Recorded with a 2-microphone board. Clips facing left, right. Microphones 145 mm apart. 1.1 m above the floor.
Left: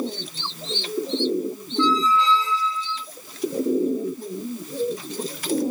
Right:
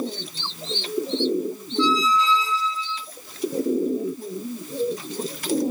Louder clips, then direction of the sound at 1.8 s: Left 1 dB; 55° left (ahead or behind).